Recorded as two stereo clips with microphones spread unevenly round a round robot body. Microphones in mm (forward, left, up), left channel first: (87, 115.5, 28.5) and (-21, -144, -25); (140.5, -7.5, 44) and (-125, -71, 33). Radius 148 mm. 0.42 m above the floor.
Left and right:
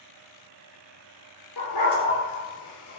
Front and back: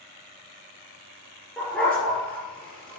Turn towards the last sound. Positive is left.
turn(degrees=100)